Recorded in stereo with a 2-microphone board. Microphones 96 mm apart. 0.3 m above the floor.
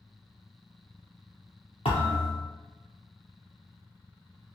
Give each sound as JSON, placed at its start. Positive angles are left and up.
{"t": 1.9, "sound": "a thud", "side_deg": 80, "distance_m": 1.9}